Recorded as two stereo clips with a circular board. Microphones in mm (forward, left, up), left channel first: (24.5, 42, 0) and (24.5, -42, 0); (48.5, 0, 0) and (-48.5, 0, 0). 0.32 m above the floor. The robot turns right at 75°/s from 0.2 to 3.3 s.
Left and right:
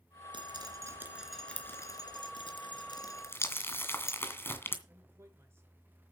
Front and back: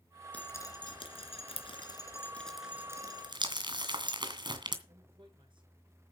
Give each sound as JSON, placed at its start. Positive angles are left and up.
{"t": 0.3, "sound": "dripping", "azimuth_deg": -75, "distance_m": 2.5}
{"t": 3.3, "sound": "crumpling", "azimuth_deg": 150, "distance_m": 2.0}
{"t": 4.9, "sound": "a man speaking", "azimuth_deg": -150, "distance_m": 5.0}